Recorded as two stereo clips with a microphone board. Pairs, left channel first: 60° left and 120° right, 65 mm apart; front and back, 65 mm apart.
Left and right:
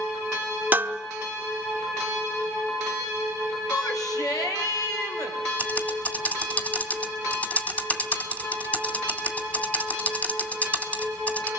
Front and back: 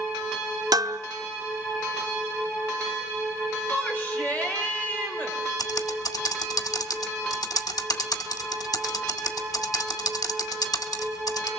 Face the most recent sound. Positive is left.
turn(degrees=-5)